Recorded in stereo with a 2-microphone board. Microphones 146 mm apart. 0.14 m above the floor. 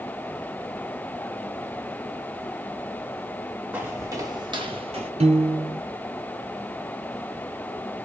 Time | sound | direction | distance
3.7 | footsteps | 15° right (ahead or behind) | 1.5 m
5.2 | a piano | 45° right (ahead or behind) | 0.8 m